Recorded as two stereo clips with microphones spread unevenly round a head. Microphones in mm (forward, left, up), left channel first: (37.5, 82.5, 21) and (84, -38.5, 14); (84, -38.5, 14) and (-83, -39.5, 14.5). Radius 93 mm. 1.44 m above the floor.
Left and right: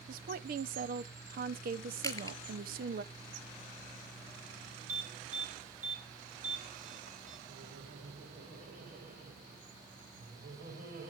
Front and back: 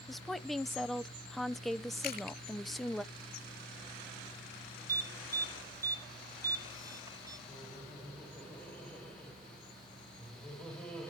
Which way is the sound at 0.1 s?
90° right.